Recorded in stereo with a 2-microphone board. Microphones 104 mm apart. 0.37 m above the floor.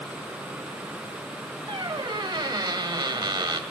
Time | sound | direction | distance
1.7 | a squeak | 45° right (ahead or behind) | 0.8 m